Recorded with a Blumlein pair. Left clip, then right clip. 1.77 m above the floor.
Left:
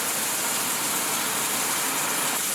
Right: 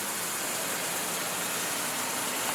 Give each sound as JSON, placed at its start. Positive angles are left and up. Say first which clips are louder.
{"t": 0.0, "sound": "running water", "louder": "left 5 dB", "azimuth_deg": 60, "distance_m": 3.0}